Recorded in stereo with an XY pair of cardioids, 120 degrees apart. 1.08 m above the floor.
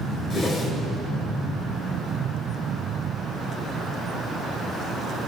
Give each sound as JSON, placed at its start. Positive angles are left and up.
{"t": 0.3, "sound": "a whoosh", "azimuth_deg": 50, "distance_m": 8.0}